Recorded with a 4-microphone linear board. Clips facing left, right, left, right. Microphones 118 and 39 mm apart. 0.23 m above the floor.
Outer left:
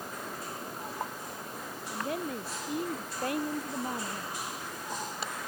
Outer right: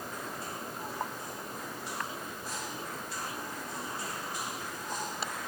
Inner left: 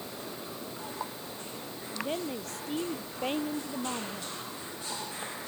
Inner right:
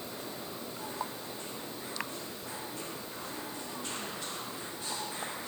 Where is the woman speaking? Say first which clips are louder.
Outer left 9 dB, inner left 9 dB; 70° left (ahead or behind).